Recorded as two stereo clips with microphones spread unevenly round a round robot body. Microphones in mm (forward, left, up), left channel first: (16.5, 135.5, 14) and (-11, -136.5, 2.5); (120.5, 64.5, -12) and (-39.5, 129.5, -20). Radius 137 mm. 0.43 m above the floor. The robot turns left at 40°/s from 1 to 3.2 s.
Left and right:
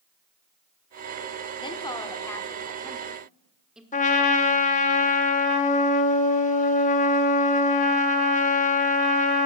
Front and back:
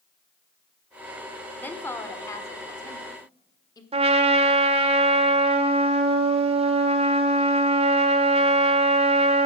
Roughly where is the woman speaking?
Ahead left.